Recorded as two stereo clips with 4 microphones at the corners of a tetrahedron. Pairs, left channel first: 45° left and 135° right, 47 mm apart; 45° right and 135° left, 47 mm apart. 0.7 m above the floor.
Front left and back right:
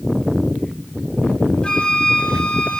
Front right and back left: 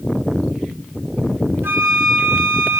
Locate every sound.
1.6 s a flute: 115° left, 1.6 m